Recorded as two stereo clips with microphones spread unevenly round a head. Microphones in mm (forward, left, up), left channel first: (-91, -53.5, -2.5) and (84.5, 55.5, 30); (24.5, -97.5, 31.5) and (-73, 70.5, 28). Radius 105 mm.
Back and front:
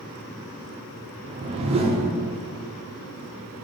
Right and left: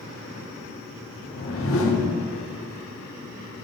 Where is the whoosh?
35° right, 1.0 m.